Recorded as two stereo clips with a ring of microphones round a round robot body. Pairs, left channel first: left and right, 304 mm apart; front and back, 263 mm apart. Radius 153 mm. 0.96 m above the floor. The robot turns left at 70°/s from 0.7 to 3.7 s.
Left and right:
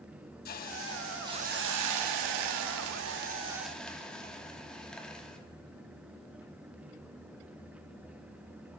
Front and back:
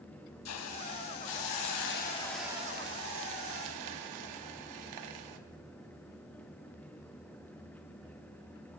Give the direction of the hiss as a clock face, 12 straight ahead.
11 o'clock.